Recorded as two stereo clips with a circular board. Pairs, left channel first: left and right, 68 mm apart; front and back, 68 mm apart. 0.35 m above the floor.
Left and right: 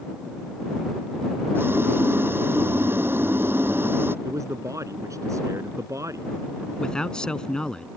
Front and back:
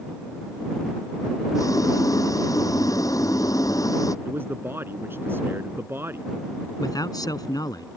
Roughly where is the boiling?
Ahead right.